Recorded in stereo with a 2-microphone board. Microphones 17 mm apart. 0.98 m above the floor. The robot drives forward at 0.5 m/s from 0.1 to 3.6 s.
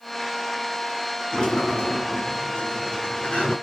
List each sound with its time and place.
1.3 s a sliding door: 90° left, 9.5 m; by 3.5 s 85° left, 9.5 m